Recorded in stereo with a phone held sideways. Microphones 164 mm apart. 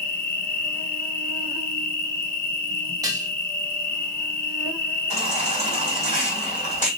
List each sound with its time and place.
0.0 s an insect: 55° left (ahead or behind), 0.8 m
3.0 s dishes clattering: 20° right (ahead or behind), 0.9 m
5.1 s a baby crying: 40° left (ahead or behind), 2.5 m